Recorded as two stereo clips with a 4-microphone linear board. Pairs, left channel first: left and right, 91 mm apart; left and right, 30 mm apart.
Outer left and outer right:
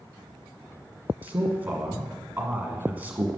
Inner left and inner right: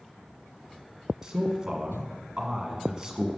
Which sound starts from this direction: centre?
A man speaking, at 1.2 s.